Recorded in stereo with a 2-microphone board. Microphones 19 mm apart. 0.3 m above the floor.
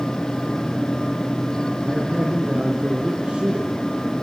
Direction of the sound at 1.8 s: 55° right (ahead or behind).